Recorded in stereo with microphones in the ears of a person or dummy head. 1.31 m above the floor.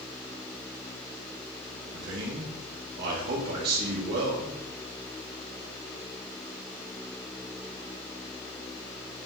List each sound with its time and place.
1.9 s a man speaking: 50° right (ahead or behind), 1.8 m